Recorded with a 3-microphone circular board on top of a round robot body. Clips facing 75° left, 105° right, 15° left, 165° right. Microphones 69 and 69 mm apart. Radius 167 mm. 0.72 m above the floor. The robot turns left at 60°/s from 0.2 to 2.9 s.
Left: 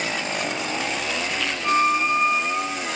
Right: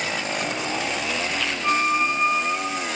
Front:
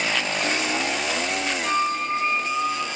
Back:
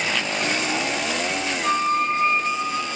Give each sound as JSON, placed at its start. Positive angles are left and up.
{"t": 1.6, "sound": "a flute", "azimuth_deg": -175, "distance_m": 4.0}